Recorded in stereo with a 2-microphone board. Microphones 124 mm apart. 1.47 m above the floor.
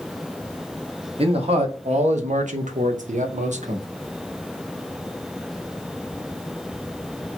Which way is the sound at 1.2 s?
50° right (ahead or behind).